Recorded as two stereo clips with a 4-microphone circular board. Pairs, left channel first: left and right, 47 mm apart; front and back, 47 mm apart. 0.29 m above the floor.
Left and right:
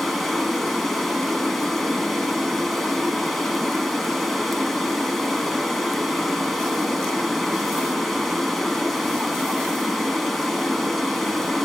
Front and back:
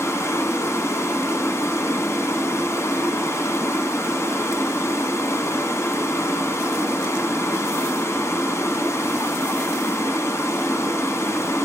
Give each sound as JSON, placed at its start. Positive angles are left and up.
{"t": 0.0, "sound": "running water", "azimuth_deg": 0, "distance_m": 1.2}